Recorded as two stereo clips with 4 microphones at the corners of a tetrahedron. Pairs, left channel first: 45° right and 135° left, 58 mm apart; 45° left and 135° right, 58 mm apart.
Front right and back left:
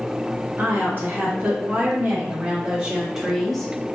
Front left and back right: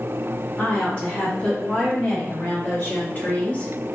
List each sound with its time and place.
0.6 s a woman speaking: 90° left, 2 m; by 3.7 s 20° left, 0.8 m